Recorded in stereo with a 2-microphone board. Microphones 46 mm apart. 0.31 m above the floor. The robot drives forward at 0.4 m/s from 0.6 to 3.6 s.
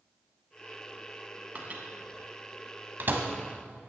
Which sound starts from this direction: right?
A microwave, at 1.6 s.